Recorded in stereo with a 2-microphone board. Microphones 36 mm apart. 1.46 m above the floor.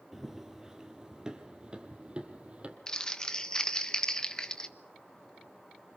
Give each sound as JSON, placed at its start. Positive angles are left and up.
{"t": 0.1, "sound": "running footsteps", "side_deg": -10, "distance_m": 2.5}
{"t": 2.9, "sound": "crumpling", "side_deg": 20, "distance_m": 1.3}